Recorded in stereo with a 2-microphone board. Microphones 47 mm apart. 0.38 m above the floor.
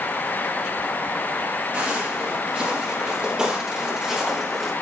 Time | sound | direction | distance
1.7 | footsteps | 30° right (ahead or behind) | 5 m